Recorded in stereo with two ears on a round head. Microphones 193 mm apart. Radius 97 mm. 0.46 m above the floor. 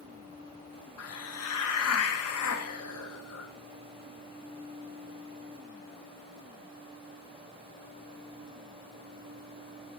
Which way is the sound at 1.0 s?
75° left (ahead or behind).